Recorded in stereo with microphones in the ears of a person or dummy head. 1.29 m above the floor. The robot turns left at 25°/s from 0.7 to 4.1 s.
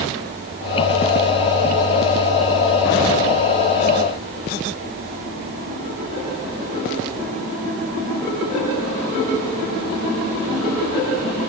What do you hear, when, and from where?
Only background noise.